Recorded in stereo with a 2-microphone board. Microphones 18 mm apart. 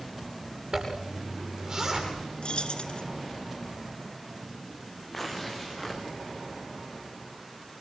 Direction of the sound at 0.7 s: 35° right (ahead or behind).